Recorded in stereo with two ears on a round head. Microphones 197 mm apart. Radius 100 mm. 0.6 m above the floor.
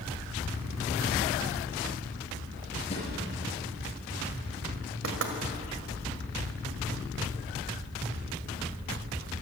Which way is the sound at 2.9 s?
30° left (ahead or behind).